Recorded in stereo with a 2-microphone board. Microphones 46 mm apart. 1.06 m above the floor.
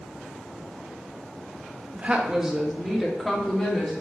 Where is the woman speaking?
30° right (ahead or behind), 1.0 m; by 3.9 s 15° left (ahead or behind), 2.5 m.